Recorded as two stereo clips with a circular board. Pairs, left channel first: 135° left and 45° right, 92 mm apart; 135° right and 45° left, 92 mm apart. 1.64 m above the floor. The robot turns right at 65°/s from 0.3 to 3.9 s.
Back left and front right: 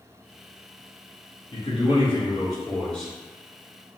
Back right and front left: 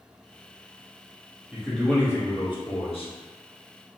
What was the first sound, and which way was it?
A man speaking, 120° left.